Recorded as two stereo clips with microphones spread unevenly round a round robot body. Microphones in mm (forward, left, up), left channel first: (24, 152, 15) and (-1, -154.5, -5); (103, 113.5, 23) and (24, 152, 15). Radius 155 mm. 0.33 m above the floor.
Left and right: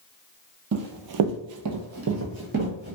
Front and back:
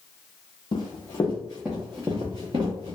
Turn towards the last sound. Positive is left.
turn(degrees=-155)